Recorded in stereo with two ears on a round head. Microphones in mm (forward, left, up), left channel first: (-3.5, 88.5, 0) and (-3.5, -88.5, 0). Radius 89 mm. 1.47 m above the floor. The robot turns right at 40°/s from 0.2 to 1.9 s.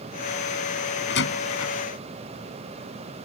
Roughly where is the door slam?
Left.